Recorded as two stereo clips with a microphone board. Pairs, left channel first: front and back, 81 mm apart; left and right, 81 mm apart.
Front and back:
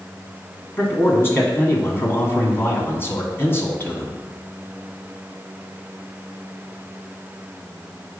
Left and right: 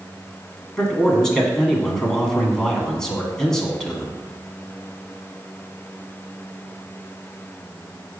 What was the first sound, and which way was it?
A man speaking, 15° left.